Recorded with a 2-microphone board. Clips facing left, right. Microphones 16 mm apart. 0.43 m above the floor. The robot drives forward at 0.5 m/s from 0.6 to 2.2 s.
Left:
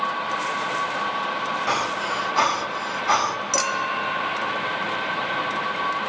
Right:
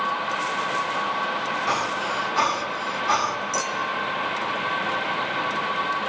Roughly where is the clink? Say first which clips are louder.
Left 2 dB; left.